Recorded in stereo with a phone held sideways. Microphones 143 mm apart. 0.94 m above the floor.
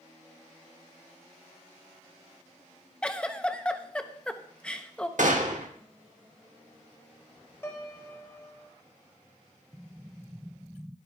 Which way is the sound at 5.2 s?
70° right (ahead or behind).